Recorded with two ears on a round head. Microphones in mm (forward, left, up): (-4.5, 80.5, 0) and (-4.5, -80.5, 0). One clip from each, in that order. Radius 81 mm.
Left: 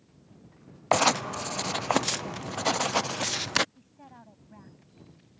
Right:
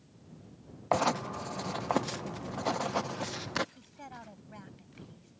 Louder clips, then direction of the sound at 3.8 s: Right 4 dB; 80° right.